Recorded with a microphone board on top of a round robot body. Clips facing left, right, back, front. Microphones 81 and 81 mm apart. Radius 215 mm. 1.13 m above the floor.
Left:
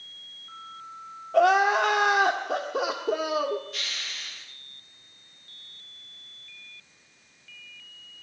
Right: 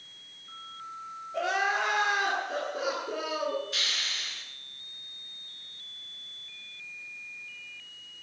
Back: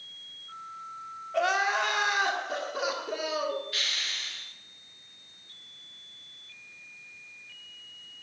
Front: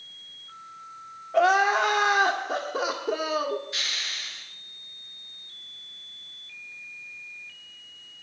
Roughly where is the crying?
Ahead left.